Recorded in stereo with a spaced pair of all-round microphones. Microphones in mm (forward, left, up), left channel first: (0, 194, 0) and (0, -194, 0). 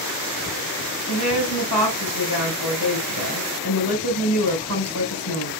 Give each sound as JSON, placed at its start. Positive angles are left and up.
{"t": 1.1, "sound": "a woman speaking", "side_deg": 85, "distance_m": 5.0}